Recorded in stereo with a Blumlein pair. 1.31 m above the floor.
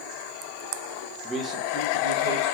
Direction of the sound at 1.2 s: 10° right.